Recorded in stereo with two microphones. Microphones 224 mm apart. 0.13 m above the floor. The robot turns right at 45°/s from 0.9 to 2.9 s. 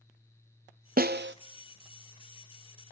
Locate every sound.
1.0 s a snare drum: 40° right (ahead or behind), 0.5 m; by 1.4 s 60° right (ahead or behind), 0.5 m